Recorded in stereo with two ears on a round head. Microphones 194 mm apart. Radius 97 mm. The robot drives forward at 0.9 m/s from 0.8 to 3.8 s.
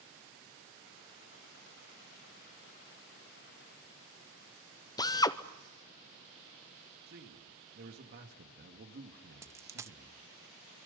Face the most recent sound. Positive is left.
turn(degrees=-15)  # may be behind; listen again after turning